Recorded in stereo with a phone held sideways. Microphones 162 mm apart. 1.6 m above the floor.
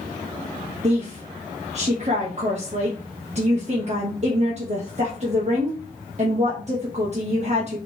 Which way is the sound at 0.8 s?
45° right (ahead or behind).